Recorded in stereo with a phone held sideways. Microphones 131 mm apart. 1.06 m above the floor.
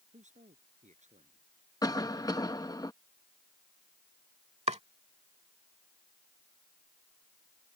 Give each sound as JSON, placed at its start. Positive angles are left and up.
{"t": 0.1, "sound": "a man speaking", "side_deg": -70}
{"t": 1.8, "sound": "a cough", "side_deg": 30}
{"t": 4.7, "sound": "chopping", "side_deg": -60}